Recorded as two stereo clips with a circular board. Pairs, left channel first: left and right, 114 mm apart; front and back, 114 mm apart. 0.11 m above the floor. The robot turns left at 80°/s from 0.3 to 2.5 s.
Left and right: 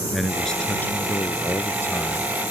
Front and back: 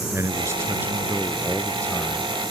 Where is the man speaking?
Straight behind; by 2.3 s 20° left.